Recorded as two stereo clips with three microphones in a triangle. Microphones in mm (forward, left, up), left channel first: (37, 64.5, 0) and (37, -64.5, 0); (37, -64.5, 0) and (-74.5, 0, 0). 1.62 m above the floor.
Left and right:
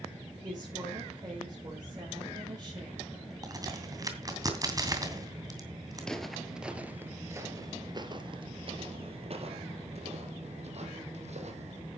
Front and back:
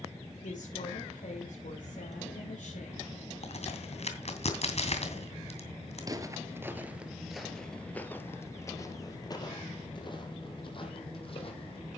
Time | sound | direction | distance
0.4 | a woman speaking | 30° right | 6 m
3.4 | a crack | 35° right | 2.5 m
6.0 | footsteps | 170° left | 1.8 m